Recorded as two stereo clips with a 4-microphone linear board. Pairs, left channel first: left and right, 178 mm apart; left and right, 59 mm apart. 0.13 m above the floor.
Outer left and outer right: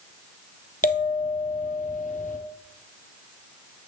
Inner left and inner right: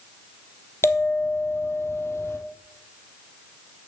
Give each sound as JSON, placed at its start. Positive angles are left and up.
{"t": 0.8, "sound": "a bell", "side_deg": 40, "distance_m": 1.4}